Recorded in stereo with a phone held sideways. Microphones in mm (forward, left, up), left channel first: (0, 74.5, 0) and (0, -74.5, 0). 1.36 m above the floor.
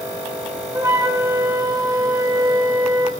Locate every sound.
0.7 s a flute: 20° right (ahead or behind), 3 m